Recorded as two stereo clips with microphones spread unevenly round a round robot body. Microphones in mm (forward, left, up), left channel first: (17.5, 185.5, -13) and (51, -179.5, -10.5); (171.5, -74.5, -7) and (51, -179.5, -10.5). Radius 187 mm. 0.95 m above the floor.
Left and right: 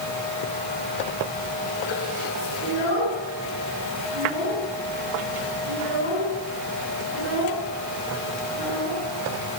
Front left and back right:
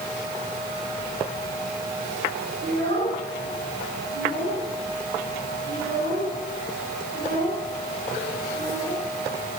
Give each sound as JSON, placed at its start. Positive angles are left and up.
{"t": 2.6, "sound": "a child speaking", "azimuth_deg": -145, "distance_m": 7.5}